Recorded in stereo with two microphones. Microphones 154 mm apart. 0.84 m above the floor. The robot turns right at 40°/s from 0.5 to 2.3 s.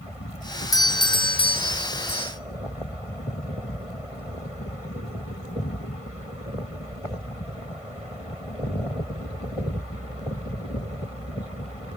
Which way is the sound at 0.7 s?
35° left.